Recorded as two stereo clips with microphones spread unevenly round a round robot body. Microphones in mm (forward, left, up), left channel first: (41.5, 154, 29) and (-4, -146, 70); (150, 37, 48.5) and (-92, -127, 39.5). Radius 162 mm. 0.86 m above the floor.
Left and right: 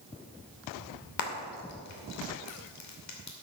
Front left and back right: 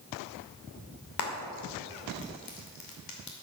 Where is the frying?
55° left, 2.5 m.